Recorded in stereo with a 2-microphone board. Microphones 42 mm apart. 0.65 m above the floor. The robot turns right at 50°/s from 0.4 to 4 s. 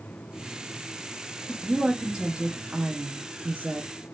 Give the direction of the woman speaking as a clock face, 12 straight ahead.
6 o'clock.